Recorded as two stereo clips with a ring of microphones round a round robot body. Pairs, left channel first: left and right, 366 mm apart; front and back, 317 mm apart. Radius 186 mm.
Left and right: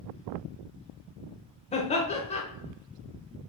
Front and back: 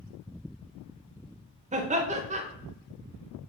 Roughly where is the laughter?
Behind left.